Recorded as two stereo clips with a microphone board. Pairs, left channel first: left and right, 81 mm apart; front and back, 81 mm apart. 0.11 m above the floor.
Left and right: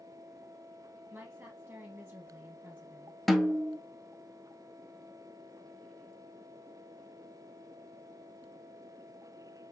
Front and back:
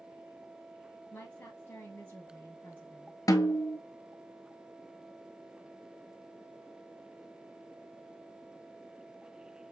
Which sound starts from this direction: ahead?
A snare drum, at 3.3 s.